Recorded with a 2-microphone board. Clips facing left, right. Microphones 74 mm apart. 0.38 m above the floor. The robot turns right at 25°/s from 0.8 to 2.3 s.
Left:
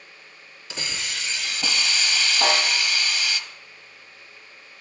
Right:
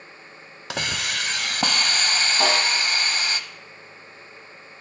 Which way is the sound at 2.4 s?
70° right (ahead or behind).